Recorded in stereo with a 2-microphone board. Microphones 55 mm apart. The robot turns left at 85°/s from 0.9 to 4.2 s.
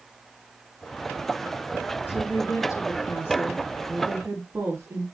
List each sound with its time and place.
2.1 s a woman speaking: 140° left, 4 m; by 5.0 s 40° right, 4 m